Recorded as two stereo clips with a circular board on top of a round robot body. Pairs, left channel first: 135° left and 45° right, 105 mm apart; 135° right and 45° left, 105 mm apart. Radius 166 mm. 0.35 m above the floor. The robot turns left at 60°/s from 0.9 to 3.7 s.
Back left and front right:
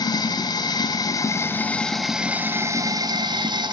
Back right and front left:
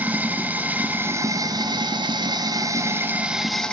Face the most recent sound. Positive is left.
turn(degrees=-55)